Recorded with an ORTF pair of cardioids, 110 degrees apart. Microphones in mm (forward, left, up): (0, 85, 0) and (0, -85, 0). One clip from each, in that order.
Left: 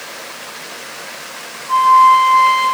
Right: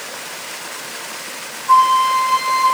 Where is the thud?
No thud in this recording.